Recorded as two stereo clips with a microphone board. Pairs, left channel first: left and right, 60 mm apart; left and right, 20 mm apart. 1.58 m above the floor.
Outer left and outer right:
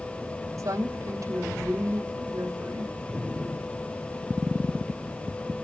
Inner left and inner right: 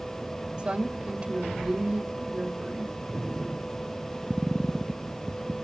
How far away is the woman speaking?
About 3 m.